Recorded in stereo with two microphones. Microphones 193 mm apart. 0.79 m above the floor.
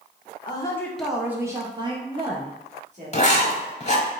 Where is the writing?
40° left (ahead or behind), 0.7 m.